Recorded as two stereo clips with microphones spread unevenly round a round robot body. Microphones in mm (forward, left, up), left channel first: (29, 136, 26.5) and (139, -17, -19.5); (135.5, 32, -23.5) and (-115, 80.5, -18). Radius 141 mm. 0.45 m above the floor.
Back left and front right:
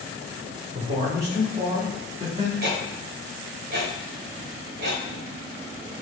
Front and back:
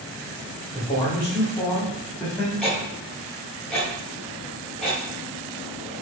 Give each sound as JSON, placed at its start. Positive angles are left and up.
{"t": 0.7, "sound": "a man speaking", "azimuth_deg": -60, "distance_m": 1.8}
{"t": 2.6, "sound": "ticking", "azimuth_deg": -95, "distance_m": 1.2}